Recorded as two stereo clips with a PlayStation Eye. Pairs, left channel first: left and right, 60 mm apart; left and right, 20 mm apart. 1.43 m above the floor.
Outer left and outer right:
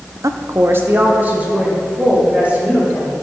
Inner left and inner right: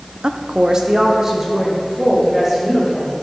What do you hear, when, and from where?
0.2 s a woman speaking: 65° right (ahead or behind), 0.7 m; by 3.1 s 20° right (ahead or behind), 5 m